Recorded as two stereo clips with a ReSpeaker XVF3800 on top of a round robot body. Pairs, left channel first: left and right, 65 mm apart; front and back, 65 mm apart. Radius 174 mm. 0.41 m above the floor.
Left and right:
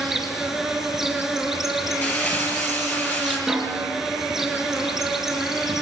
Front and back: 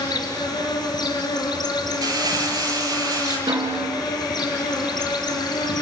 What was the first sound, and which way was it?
An insect, 5° right.